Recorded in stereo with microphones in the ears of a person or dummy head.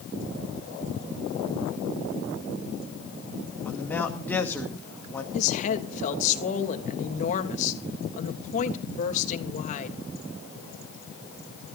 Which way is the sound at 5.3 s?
45° left (ahead or behind).